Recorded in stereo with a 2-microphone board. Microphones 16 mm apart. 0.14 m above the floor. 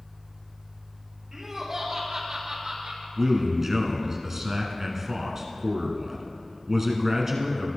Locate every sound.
1.3 s laughter: 25° right (ahead or behind), 3 m; by 3.1 s 45° right (ahead or behind), 2 m
3.2 s a man speaking: 25° right (ahead or behind), 1.2 m